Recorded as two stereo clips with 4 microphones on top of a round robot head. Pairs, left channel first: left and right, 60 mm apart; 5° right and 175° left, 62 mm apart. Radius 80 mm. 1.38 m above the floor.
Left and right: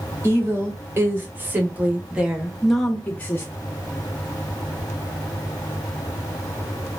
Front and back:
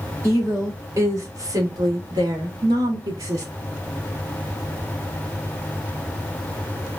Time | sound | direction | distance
0.2 | a woman speaking | 135° right | 1.8 m